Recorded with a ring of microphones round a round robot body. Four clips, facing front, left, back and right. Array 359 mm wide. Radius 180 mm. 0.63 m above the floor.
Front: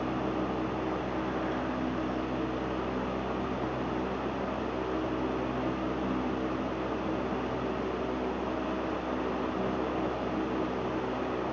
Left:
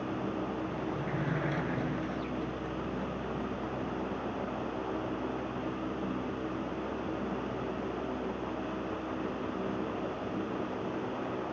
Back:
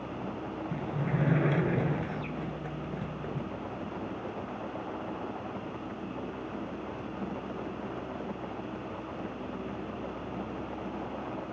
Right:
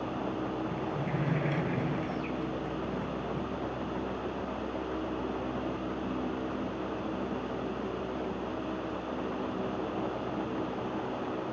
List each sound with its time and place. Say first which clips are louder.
0.7 s a sliding door: right 1 dB, front 2 dB; 170° right